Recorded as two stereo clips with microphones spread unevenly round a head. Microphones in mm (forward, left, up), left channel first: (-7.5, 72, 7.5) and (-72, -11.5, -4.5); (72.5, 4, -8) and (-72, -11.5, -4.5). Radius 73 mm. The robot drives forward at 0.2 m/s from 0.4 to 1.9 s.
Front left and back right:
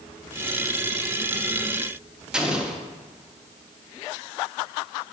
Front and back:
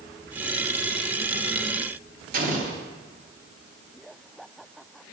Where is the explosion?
150° left, 1.0 m.